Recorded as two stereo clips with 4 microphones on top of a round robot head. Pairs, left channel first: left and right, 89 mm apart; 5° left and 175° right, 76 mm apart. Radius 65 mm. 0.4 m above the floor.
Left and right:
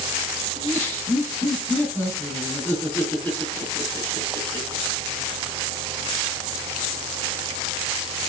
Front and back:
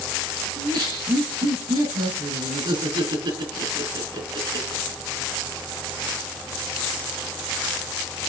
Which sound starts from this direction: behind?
Laughter, at 0.6 s.